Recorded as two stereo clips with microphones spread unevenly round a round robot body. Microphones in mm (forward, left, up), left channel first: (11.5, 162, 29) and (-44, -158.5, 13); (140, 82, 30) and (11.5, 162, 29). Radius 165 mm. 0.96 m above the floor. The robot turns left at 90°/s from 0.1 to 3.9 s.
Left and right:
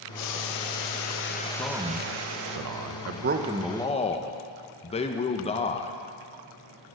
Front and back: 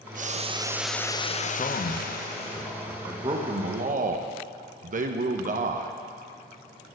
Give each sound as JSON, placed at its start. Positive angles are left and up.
{"t": 0.1, "sound": "boiling", "azimuth_deg": 125, "distance_m": 0.7}
{"t": 1.6, "sound": "a man speaking", "azimuth_deg": 0, "distance_m": 0.6}